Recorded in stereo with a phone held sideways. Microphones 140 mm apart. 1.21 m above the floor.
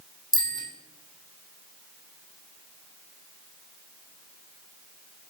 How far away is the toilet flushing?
I don't hear a toilet flushing.